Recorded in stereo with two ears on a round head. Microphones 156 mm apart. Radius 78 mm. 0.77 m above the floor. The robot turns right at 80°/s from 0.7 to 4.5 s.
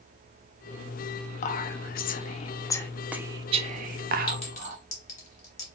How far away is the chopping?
I don't hear chopping.